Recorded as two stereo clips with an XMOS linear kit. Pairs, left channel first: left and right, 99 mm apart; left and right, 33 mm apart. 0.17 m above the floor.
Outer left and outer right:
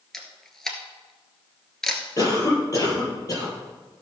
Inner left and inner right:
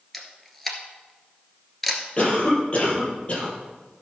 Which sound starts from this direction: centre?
A camera shutter, at 0.1 s.